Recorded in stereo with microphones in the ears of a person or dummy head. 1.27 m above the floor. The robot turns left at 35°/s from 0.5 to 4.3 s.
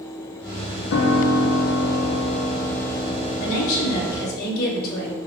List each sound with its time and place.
0.9 s a piano: 110° left, 0.8 m; by 4.4 s 5° right, 0.8 m
3.4 s a woman speaking: 85° left, 1.8 m; by 5.2 s 50° left, 1.8 m